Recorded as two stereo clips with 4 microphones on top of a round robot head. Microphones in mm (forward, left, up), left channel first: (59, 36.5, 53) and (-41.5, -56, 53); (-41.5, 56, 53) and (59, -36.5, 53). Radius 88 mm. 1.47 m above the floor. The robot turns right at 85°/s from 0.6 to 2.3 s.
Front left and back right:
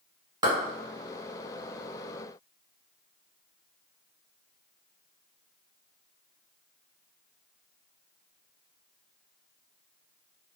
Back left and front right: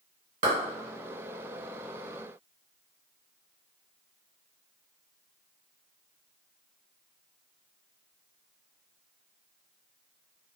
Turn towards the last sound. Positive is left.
turn(degrees=70)